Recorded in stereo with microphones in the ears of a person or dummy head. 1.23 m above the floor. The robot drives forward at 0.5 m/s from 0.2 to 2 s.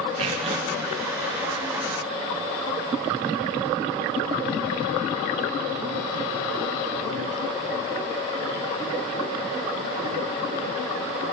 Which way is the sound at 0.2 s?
35° right (ahead or behind).